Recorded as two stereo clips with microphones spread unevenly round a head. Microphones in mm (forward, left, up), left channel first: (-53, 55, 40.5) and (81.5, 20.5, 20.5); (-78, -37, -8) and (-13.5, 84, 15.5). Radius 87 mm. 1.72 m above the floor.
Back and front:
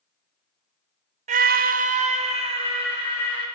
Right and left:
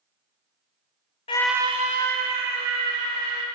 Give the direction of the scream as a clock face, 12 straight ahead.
2 o'clock.